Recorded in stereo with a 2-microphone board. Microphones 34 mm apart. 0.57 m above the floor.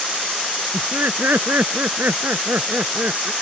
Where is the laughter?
80° right; by 3.3 s 70° right (ahead or behind).